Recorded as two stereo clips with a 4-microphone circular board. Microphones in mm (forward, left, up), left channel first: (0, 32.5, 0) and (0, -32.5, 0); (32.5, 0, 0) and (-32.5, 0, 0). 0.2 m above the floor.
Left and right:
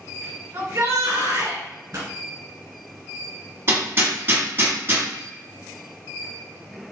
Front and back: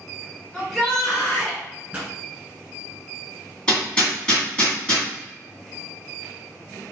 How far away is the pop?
About 1.5 m.